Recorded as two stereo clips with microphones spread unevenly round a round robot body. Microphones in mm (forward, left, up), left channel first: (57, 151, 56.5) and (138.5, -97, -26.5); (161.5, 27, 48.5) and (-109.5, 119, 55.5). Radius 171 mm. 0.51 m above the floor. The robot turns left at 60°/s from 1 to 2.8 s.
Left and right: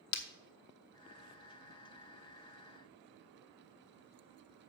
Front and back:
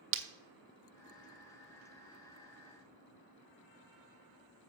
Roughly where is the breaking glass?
Behind left.